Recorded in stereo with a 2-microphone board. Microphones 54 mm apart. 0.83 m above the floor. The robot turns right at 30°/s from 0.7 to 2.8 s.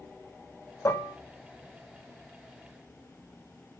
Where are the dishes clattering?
60° left (ahead or behind), 0.7 m; by 1.2 s 65° left (ahead or behind), 0.7 m.